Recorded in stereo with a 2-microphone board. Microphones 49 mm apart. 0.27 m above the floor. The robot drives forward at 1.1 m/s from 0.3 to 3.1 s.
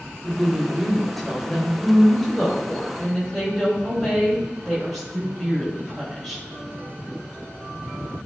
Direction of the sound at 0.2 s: 5° left (ahead or behind).